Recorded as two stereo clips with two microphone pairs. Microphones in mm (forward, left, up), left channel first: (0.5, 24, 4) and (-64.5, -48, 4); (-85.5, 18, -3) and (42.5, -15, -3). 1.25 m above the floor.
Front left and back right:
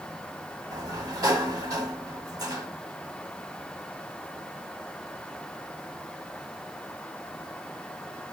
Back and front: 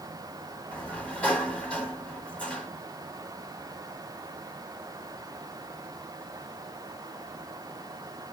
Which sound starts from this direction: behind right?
A sliding door, at 0.7 s.